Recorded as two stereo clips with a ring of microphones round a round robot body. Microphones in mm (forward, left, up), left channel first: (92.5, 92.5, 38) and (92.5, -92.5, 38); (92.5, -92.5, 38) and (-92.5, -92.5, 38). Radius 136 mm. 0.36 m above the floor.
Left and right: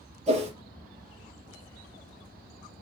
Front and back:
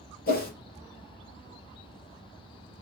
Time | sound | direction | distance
0.3 | a whoosh | 35° right | 3.5 m